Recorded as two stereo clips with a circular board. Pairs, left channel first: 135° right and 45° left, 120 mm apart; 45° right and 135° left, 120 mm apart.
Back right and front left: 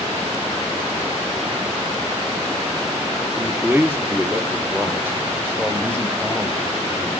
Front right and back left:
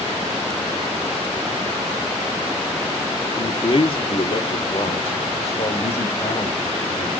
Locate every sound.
3.4 s a man speaking: 20° right, 1.7 m; by 7.1 s 25° right, 4 m